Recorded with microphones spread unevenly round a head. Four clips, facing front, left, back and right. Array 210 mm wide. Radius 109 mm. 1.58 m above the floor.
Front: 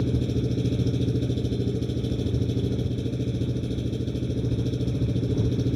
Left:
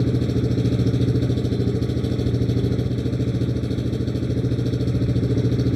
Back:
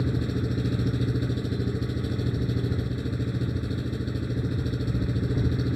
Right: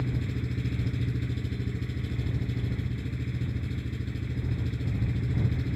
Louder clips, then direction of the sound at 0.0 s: Left 12 dB, front 2 dB; 85° left.